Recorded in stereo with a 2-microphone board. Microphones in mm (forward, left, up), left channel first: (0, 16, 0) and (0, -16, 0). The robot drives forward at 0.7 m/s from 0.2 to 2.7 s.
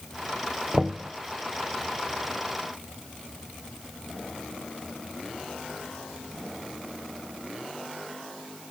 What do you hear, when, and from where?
0.7 s knocking: 25° right (ahead or behind), 0.7 m; by 1.1 s 20° right (ahead or behind), 0.8 m